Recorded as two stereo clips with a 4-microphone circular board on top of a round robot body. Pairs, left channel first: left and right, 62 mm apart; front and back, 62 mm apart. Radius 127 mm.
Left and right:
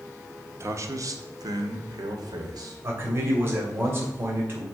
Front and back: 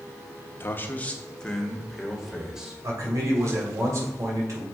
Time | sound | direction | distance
0.6 | a man speaking | 50° right | 1.2 m
2.8 | a man speaking | 145° right | 2.5 m